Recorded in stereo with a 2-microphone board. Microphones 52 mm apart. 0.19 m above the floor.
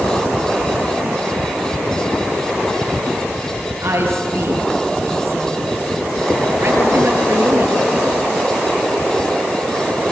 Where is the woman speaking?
55° right (ahead or behind), 4.5 m.